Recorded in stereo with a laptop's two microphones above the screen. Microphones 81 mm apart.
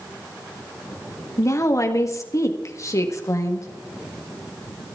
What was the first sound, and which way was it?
A woman speaking, 40° left (ahead or behind).